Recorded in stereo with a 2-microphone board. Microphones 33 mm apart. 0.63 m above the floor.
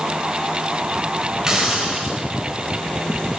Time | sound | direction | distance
1.5 | a hiss | 20° right (ahead or behind) | 2.5 m